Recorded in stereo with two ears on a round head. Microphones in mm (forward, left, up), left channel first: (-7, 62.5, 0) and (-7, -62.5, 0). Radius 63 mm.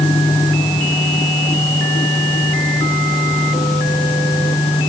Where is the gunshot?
No gunshot in this recording.